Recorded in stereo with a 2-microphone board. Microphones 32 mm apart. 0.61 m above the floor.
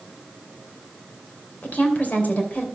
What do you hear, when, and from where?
1.6 s a woman speaking: 60° left (ahead or behind), 2.5 m